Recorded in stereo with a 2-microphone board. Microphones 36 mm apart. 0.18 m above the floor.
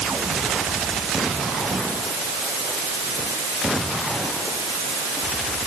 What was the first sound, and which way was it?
Only background noise.